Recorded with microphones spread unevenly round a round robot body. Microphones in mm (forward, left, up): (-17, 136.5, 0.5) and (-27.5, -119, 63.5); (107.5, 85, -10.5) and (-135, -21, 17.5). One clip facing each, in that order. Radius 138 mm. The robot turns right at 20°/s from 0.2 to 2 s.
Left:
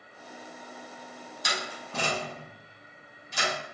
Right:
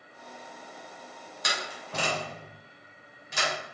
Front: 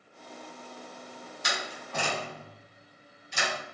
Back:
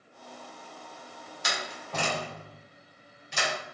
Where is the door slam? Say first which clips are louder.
Even, even; 125° right, 3 m; by 3.5 s 115° right, 3 m.